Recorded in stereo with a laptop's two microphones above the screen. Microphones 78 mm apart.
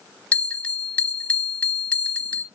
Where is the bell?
15° left (ahead or behind), 1.3 m.